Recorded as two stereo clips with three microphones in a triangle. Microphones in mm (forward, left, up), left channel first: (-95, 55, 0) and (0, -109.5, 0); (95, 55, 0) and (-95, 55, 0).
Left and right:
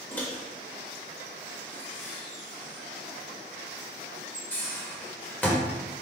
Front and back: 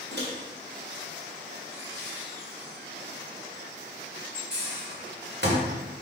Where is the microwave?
160° right, 1.7 m.